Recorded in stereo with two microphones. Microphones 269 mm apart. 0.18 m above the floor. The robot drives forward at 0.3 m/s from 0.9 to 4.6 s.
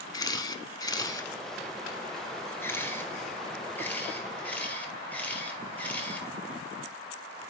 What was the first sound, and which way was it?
A camera shutter, 15° left (ahead or behind).